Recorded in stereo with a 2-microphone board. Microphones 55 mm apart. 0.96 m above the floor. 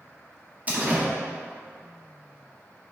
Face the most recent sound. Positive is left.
turn(degrees=-30)  # may be behind; listen again after turning